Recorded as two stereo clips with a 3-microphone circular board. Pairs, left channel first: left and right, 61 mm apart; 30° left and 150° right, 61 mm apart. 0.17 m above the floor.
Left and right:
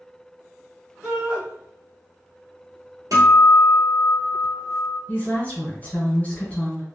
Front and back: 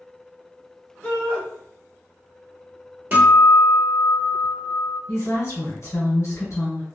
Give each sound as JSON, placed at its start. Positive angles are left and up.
{"t": 1.0, "sound": "a shout", "azimuth_deg": -25, "distance_m": 2.0}
{"t": 3.1, "sound": "a guitar", "azimuth_deg": -90, "distance_m": 1.5}
{"t": 5.1, "sound": "a woman speaking", "azimuth_deg": 35, "distance_m": 1.9}